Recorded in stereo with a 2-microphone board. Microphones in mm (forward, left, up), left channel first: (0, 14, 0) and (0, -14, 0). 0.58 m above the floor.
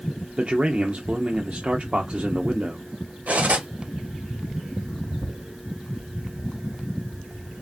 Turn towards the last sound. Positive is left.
turn(degrees=-65)  # may be behind; listen again after turning